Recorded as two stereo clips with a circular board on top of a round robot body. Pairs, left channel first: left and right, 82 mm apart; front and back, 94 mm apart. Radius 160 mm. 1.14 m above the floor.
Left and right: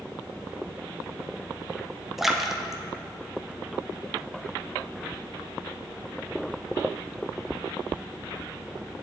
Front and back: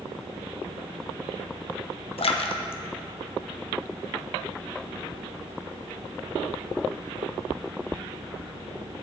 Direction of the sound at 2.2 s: 5° right.